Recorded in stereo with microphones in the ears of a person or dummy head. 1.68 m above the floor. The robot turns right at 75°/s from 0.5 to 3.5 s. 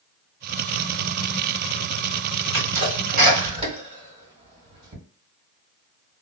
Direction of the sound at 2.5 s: 80° right.